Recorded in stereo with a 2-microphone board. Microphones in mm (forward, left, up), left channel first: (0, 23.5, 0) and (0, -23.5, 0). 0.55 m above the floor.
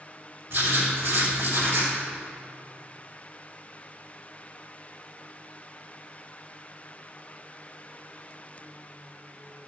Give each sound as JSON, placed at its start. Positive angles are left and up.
{"t": 0.5, "sound": "writing", "side_deg": -60, "distance_m": 2.5}